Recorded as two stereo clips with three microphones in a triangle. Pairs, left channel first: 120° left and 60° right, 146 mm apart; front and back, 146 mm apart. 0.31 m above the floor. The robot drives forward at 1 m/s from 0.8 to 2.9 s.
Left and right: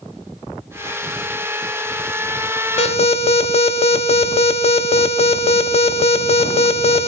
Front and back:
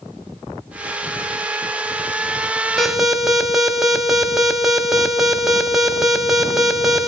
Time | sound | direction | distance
2.8 | an alarm | 85° left | 1.2 m